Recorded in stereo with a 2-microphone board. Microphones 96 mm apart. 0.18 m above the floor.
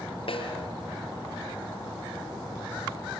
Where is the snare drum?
70° left (ahead or behind), 4.5 m.